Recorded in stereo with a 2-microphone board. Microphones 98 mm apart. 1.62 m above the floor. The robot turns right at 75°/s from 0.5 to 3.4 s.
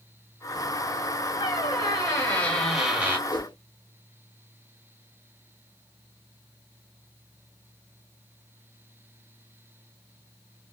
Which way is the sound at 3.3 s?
45° left (ahead or behind).